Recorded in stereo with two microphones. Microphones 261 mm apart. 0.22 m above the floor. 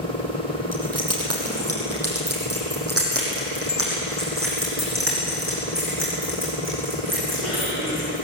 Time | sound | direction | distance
0.7 | keys jangling | 70° right (ahead or behind) | 6 m